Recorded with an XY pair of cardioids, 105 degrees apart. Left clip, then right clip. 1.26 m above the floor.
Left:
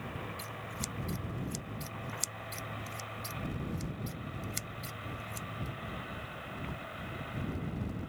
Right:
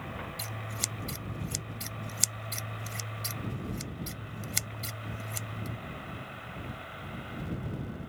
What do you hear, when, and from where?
0.4 s scissors: 55° right